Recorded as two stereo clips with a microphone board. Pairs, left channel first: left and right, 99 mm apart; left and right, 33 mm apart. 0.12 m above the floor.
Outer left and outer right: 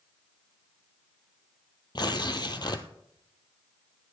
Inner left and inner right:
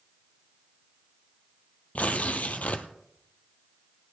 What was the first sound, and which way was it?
Tearing paper, 45° left (ahead or behind).